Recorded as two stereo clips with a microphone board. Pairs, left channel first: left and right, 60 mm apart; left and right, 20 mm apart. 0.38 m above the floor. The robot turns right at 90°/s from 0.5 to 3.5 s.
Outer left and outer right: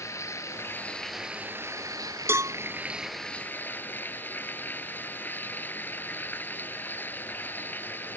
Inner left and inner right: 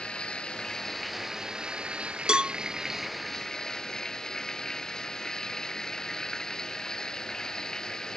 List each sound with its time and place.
0.0 s running water: 125° left; by 8.2 s 35° left
2.3 s a cowbell: 45° right (ahead or behind); by 2.5 s 70° right (ahead or behind)